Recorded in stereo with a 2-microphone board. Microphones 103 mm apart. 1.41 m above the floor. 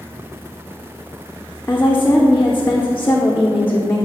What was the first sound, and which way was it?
A woman speaking, 20° left (ahead or behind).